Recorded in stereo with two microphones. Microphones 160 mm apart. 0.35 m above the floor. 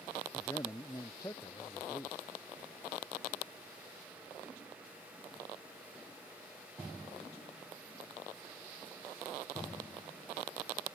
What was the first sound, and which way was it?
A man speaking, 20° left (ahead or behind).